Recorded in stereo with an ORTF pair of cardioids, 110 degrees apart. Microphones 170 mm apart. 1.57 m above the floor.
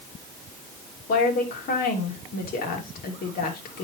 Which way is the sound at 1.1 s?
60° left.